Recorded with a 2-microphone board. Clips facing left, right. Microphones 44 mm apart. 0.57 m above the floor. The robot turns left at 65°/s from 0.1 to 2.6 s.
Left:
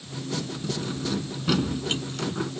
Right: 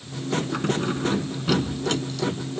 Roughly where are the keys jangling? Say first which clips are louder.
Right 6 dB; behind right.